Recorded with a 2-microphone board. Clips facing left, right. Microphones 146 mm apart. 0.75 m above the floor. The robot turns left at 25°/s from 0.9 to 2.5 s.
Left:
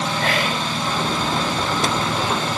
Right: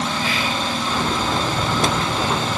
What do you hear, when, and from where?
0.2 s whispering: 60° left (ahead or behind), 3 m